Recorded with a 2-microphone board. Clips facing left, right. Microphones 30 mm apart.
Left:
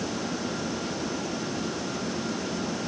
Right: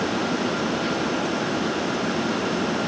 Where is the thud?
No thud in this recording.